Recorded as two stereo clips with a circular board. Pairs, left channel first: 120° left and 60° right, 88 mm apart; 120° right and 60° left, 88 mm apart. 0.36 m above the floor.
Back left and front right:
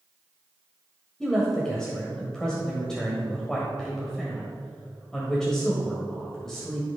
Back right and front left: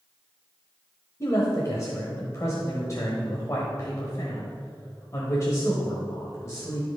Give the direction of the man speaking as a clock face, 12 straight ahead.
5 o'clock.